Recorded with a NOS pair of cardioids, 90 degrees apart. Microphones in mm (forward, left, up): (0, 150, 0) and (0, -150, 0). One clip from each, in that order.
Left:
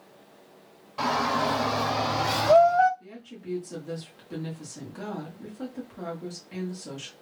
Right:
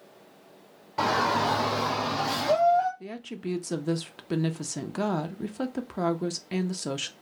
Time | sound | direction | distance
1.0 | a shout | 30° right | 0.9 m
3.0 | a woman speaking | 60° right | 0.6 m